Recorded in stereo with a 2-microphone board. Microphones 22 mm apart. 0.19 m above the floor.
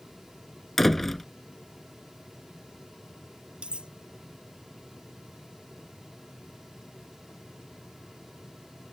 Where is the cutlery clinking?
50° right (ahead or behind).